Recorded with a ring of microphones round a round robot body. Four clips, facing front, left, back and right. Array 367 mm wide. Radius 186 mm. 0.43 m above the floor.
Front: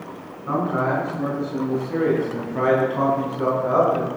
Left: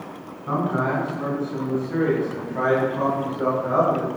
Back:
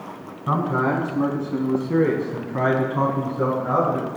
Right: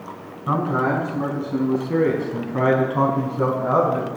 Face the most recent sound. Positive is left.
turn(degrees=-90)